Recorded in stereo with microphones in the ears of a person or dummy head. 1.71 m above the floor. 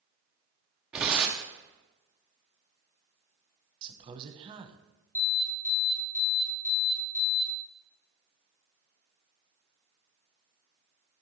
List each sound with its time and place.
0.9 s tearing paper: 5° right (ahead or behind), 0.5 m
3.8 s a man speaking: 25° right (ahead or behind), 0.8 m
5.2 s an alarm: 15° left (ahead or behind), 1.7 m